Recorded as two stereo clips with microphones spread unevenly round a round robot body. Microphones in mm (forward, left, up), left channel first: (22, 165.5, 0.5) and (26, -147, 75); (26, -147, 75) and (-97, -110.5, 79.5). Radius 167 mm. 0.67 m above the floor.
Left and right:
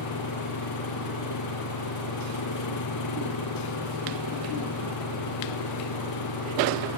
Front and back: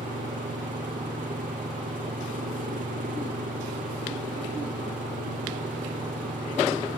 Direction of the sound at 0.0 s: 125° left.